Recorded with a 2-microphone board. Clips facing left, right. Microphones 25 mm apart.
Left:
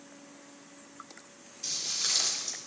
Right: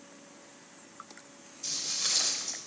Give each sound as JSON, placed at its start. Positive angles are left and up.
{"t": 1.6, "sound": "footsteps", "side_deg": 25, "distance_m": 5.5}